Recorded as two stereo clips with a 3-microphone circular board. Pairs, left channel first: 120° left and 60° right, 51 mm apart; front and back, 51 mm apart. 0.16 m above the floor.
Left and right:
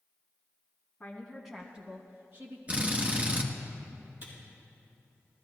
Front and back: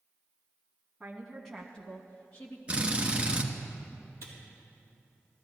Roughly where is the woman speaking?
Behind left.